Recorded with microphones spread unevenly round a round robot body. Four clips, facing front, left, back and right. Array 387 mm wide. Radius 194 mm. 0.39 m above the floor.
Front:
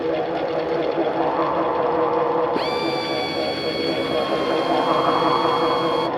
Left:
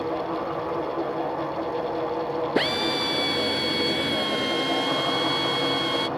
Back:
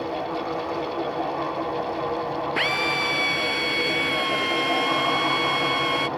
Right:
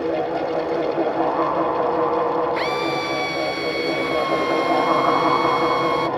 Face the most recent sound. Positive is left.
turn(degrees=55)